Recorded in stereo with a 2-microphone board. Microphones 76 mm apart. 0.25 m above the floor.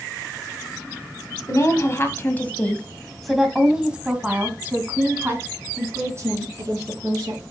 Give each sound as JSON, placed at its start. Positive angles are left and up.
{"t": 1.5, "sound": "a woman speaking", "side_deg": 40, "distance_m": 1.7}